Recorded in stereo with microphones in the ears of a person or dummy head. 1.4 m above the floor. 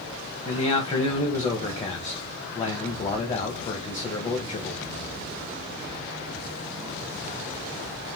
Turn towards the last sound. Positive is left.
turn(degrees=20)  # may be behind; listen again after turning